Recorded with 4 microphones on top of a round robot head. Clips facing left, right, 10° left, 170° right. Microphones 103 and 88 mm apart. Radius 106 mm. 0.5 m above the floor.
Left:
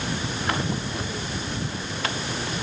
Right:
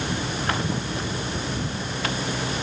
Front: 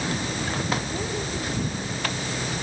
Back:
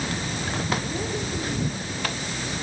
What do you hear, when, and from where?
Only background noise.